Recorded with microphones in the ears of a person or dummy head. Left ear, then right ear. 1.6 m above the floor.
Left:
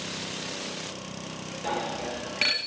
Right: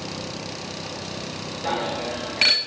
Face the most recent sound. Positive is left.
turn(degrees=0)  # may be behind; listen again after turning